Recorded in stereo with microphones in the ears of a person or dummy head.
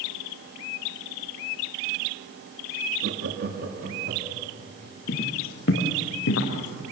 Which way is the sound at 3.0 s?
65° right (ahead or behind).